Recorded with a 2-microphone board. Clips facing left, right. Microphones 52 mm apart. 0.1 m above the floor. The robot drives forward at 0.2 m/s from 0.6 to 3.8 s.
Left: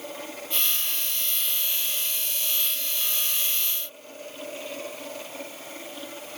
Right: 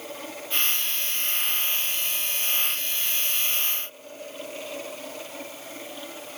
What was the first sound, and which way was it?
Only background noise.